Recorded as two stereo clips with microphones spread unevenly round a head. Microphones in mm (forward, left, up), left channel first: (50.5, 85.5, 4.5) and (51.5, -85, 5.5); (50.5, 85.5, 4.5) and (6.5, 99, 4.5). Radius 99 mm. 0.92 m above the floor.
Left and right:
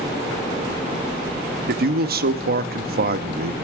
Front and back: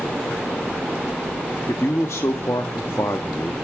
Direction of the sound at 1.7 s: 65° right.